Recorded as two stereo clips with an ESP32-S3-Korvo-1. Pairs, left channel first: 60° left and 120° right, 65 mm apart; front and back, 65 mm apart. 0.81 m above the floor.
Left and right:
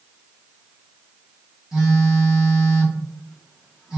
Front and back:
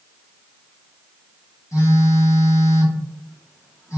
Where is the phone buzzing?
40° right, 0.8 m.